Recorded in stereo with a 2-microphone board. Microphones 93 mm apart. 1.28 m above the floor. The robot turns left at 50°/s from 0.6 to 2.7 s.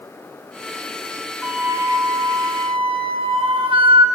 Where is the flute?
15° right, 1.6 m; by 4.0 s 75° right, 1.6 m.